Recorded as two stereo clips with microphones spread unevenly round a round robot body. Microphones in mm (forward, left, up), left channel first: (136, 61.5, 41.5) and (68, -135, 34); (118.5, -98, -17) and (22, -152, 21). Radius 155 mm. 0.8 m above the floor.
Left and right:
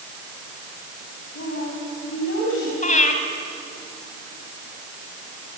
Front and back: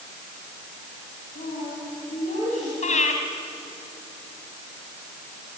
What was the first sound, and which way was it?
A woman speaking, 50° left.